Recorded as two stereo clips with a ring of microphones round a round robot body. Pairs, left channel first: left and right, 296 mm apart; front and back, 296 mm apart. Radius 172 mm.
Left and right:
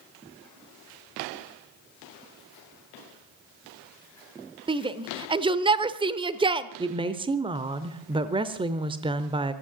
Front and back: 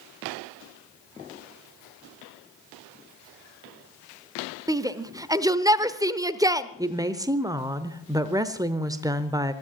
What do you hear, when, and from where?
4.7 s a shout: 125° right, 0.8 m
6.8 s a woman speaking: 125° right, 0.9 m